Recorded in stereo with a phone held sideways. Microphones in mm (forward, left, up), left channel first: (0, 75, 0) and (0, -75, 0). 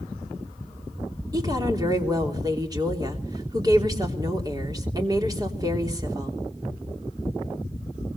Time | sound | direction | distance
1.3 | a woman speaking | 25° right (ahead or behind) | 3.5 m